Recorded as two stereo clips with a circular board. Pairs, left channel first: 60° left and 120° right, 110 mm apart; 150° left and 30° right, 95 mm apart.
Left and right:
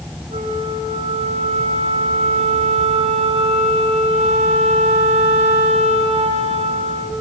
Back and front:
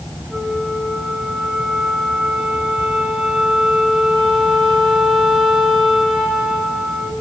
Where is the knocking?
I don't hear knocking.